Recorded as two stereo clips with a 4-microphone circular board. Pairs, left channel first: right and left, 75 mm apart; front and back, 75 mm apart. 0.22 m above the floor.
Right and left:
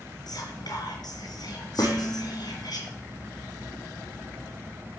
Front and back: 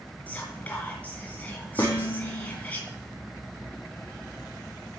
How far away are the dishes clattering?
About 5 m.